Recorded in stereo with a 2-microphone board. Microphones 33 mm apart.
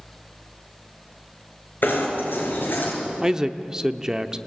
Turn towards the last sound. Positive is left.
turn(degrees=-15)  # may be behind; listen again after turning